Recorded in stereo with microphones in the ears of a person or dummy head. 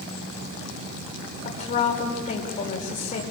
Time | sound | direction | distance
1.4 | a woman speaking | 45° left (ahead or behind) | 5.5 m